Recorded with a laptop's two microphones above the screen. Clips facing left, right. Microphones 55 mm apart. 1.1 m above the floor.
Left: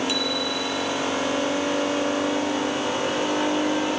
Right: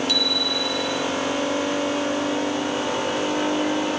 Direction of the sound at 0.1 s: 20° left (ahead or behind).